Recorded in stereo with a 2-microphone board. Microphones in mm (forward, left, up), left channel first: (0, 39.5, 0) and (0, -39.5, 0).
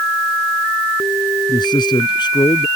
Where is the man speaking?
70° left (ahead or behind).